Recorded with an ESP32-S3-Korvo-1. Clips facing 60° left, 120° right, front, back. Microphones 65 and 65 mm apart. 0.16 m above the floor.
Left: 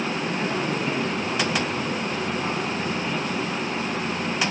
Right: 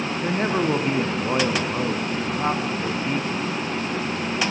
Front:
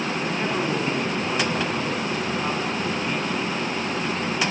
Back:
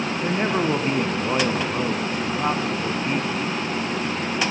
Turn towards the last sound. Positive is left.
turn(degrees=-130)